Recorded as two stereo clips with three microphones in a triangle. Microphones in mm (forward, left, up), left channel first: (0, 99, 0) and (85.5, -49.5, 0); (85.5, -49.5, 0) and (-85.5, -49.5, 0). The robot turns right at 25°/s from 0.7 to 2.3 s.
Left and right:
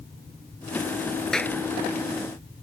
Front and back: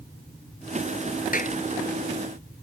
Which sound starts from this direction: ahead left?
A clap, at 1.3 s.